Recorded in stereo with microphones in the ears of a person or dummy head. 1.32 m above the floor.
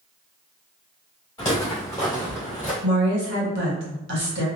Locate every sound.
1.4 s footsteps: 15° left (ahead or behind), 1.7 m; by 2.7 s 5° left (ahead or behind), 1.3 m
2.8 s a woman speaking: 60° right (ahead or behind), 1.3 m